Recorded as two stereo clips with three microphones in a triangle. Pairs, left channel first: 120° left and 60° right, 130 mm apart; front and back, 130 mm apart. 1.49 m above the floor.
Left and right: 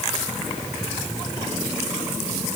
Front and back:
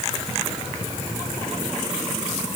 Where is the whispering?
No whispering in this recording.